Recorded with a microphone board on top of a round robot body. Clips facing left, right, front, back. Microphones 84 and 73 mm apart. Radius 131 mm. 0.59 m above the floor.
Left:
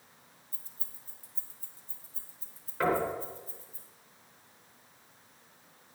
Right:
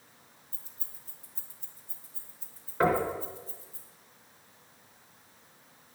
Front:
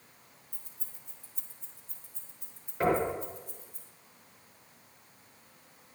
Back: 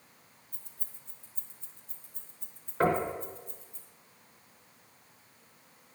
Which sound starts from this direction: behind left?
Keys jangling, at 0.5 s.